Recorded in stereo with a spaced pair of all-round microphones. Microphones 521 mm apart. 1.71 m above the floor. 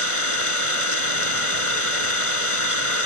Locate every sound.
0.0 s an engine running: 75° left (ahead or behind)